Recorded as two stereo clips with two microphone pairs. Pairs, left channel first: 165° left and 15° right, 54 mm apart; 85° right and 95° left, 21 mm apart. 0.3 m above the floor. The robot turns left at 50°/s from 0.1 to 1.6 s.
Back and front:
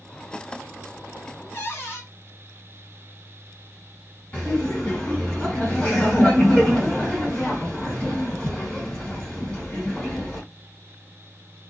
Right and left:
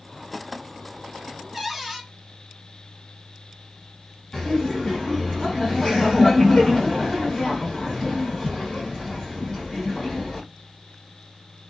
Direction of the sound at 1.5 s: 160° left.